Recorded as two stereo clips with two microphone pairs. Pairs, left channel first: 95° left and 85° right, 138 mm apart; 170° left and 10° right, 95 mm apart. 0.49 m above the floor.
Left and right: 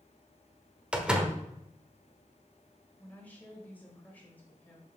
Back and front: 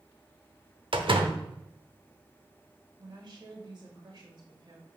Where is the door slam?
5° right, 0.8 m.